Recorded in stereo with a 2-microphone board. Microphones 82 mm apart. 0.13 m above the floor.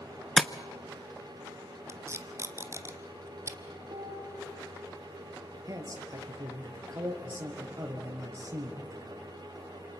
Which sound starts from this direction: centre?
Tapping, at 0.4 s.